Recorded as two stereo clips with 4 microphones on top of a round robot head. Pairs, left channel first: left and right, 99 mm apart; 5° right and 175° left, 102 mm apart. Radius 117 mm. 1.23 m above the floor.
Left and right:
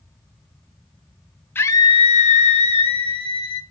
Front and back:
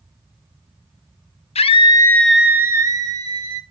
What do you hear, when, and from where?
1.6 s a scream: 20° left, 0.6 m; by 3.6 s 130° left, 1.4 m